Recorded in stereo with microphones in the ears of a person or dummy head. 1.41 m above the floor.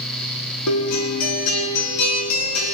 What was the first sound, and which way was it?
A guitar, 85° left.